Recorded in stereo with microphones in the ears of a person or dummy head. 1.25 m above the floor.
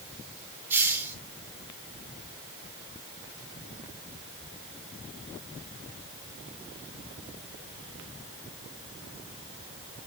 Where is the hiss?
15° right (ahead or behind), 2 m.